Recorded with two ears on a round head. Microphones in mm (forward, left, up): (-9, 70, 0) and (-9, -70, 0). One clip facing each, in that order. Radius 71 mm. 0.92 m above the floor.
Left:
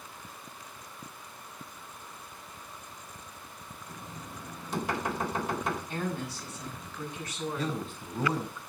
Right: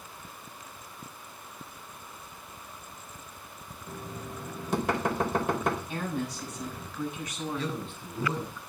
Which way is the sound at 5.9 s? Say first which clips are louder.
Right 1 dB; 5° right (ahead or behind).